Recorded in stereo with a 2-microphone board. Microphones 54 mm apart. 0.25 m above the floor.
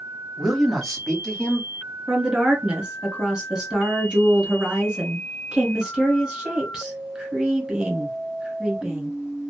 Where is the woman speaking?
10° right (ahead or behind), 1.5 m.